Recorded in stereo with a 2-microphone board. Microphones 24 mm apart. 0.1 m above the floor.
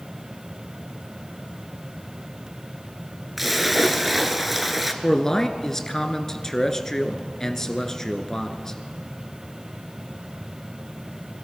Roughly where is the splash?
Centre.